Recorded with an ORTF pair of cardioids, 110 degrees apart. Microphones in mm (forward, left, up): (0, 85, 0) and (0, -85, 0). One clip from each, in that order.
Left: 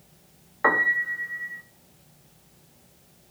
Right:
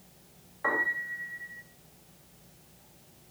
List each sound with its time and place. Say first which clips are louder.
0.6 s a piano: left 8 dB; 60° left, 2.5 m